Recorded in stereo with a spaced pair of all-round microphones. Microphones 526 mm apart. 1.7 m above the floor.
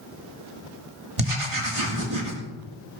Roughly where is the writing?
Right.